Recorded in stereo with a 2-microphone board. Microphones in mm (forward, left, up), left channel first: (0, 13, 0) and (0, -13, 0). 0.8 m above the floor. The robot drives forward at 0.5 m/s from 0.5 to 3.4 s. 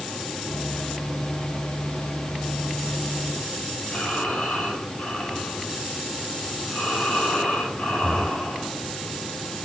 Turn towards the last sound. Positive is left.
turn(degrees=50)  # may be behind; listen again after turning